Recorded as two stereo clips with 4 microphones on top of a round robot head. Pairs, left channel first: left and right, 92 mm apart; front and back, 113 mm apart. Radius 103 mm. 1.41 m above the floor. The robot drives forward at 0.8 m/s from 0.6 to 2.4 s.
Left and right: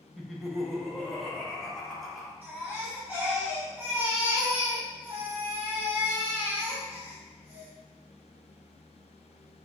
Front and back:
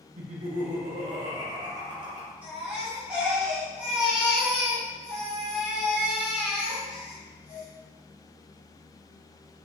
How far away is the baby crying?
About 1.2 m.